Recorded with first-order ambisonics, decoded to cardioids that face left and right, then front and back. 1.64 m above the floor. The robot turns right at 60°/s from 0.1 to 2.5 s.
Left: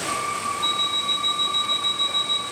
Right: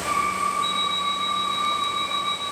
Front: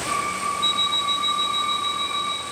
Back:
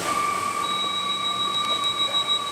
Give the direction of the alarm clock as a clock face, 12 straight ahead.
11 o'clock.